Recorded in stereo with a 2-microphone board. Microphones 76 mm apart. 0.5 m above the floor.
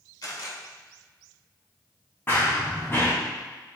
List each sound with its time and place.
0.2 s a camera shutter: 60° left (ahead or behind), 2 m
2.3 s running footsteps: 25° left (ahead or behind), 1.9 m